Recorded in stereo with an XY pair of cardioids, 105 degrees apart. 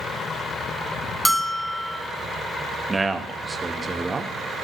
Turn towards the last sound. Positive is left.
turn(degrees=-25)